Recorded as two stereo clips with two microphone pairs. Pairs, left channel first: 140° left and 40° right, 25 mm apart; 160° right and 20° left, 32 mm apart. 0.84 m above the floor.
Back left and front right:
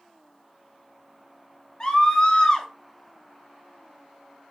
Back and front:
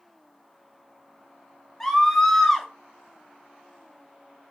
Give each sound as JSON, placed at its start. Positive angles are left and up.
{"t": 1.8, "sound": "a scream", "azimuth_deg": 125, "distance_m": 0.8}